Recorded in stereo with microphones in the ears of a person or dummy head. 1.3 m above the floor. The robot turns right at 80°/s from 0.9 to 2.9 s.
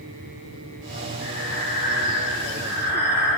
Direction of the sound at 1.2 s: 100° left.